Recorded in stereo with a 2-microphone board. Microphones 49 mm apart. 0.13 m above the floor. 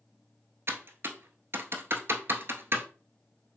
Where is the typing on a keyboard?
55° right (ahead or behind), 0.6 m.